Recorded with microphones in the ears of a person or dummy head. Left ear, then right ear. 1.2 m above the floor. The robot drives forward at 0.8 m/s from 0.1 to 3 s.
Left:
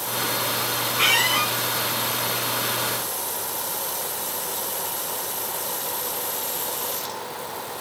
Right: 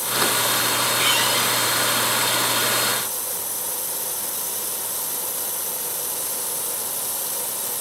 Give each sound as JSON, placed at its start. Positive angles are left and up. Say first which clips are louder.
{"t": 1.0, "sound": "a squeak", "louder": "left 3 dB", "side_deg": 40, "distance_m": 4.0}